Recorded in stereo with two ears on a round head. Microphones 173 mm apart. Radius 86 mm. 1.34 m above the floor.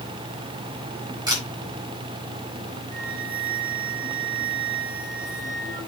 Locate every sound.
1.3 s a camera shutter: 20° right (ahead or behind), 7 m
2.9 s a flute: 35° right (ahead or behind), 9.5 m